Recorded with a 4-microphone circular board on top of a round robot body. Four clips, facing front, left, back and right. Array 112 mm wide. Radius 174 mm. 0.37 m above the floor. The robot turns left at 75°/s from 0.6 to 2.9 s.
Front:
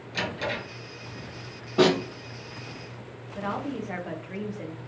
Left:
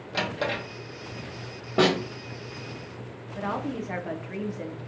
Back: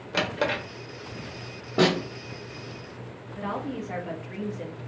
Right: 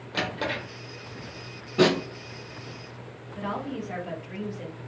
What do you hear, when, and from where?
0.1 s a drawer: straight behind, 1.0 m; by 0.6 s 175° left, 1.0 m
1.8 s a snare drum: 115° left, 1.5 m; by 2.0 s 100° left, 1.5 m
3.4 s a woman speaking: 70° left, 0.8 m